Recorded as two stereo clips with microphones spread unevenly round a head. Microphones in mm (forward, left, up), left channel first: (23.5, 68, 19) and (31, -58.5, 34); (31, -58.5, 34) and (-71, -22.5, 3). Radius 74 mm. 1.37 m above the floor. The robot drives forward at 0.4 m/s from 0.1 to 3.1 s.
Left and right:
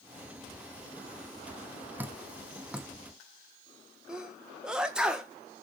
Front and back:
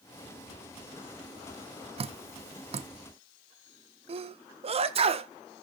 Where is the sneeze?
170° right, 1.5 m.